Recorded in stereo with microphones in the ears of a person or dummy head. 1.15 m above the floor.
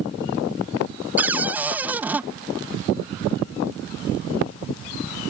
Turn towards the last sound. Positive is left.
turn(degrees=-15)  # may be behind; listen again after turning